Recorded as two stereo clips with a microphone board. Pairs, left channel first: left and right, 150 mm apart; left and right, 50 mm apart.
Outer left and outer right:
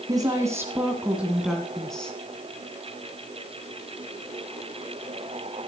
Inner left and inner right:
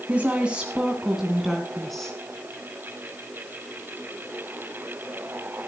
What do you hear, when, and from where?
0.1 s a woman speaking: 25° right (ahead or behind), 2 m; by 2.1 s 5° left (ahead or behind), 2.5 m